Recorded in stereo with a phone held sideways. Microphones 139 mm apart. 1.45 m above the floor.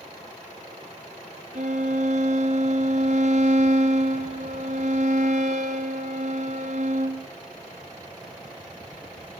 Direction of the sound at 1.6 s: 60° right (ahead or behind).